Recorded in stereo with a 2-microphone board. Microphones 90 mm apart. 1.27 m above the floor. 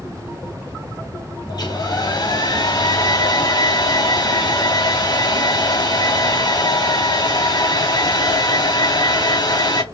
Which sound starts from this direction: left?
A hair dryer, at 1.5 s.